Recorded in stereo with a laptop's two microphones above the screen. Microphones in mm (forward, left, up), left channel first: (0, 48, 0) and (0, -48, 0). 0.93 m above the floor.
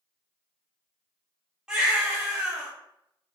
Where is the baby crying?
10° right (ahead or behind), 0.8 m.